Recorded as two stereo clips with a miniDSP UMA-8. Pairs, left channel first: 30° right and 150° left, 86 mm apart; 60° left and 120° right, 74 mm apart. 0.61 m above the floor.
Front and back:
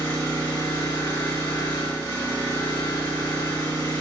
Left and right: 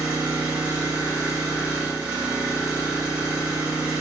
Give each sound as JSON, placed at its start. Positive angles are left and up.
{"t": 0.0, "sound": "an engine running", "azimuth_deg": -55, "distance_m": 1.6}